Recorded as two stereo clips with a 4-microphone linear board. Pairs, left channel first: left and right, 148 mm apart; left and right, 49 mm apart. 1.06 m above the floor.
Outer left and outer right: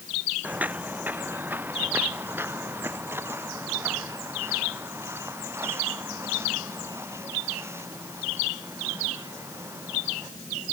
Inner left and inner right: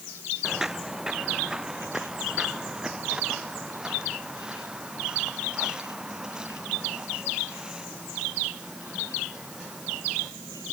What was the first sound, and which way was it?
Footsteps, 10° right (ahead or behind).